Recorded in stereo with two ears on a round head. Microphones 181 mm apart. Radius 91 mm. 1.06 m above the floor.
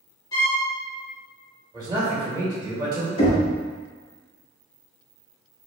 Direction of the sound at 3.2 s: 30° left (ahead or behind).